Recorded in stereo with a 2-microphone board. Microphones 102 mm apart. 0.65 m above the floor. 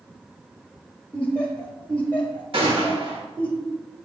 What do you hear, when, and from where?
1.1 s laughter: 15° left (ahead or behind), 1.0 m
2.5 s a gunshot: 60° right (ahead or behind), 1.8 m